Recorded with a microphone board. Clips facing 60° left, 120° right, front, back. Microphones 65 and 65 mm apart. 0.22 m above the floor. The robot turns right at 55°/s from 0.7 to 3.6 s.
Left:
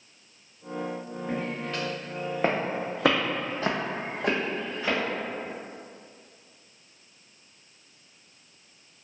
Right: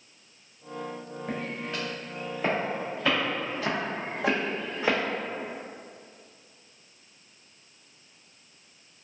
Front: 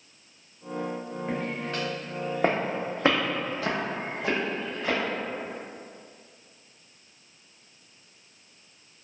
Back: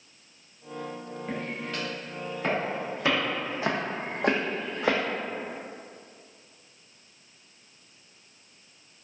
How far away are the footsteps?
About 1.7 m.